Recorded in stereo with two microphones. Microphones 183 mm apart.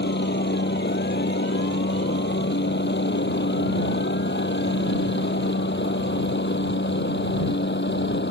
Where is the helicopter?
65° left (ahead or behind).